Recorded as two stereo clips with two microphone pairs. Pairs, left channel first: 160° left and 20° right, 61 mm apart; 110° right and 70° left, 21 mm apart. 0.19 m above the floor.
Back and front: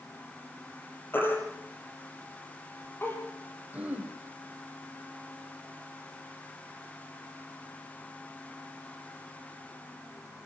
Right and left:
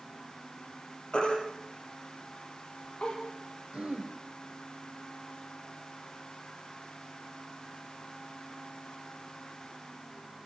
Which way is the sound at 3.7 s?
50° left.